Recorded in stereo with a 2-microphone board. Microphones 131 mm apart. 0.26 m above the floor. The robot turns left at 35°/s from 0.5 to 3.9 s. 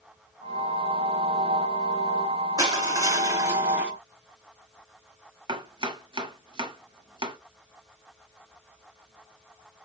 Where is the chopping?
40° right (ahead or behind), 1.0 m.